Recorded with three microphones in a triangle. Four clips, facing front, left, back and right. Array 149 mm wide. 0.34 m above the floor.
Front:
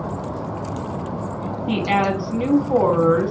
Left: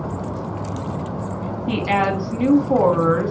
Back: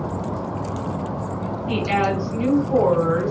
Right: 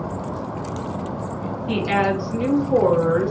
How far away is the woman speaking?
About 3 m.